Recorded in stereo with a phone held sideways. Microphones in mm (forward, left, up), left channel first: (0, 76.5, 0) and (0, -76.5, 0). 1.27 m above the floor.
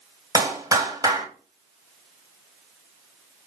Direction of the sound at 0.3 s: 25° right (ahead or behind).